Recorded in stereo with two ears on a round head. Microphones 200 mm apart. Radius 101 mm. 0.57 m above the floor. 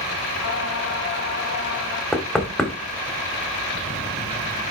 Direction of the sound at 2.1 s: Centre (ahead or behind).